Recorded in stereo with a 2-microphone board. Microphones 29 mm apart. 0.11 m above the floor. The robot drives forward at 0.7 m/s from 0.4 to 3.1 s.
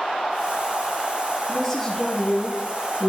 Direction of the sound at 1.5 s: 5° left (ahead or behind).